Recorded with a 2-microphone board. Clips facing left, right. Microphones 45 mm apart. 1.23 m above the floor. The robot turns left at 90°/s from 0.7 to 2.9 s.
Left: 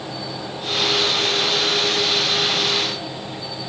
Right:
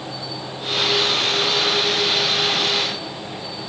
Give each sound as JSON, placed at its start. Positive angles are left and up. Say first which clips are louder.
{"t": 0.0, "sound": "an insect", "louder": "left 1 dB", "azimuth_deg": 90, "distance_m": 2.5}